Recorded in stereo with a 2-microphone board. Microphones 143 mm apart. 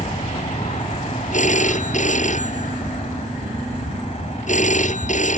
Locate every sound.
0.0 s an aircraft: 45° left (ahead or behind)
1.3 s a phone ringing: 55° left (ahead or behind)